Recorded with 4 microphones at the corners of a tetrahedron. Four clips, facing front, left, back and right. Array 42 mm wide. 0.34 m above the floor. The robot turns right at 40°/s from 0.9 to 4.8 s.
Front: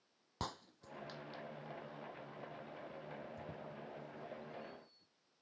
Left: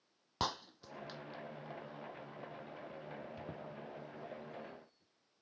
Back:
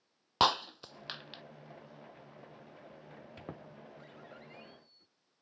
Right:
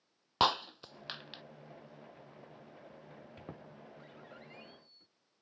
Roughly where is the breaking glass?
Behind right.